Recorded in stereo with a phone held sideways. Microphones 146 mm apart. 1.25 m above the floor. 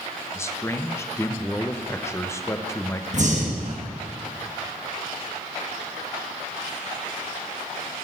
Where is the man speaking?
20° left (ahead or behind), 0.6 m.